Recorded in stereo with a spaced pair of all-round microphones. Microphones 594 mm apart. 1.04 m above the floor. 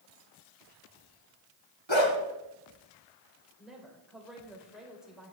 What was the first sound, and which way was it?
A dog barking, 45° left (ahead or behind).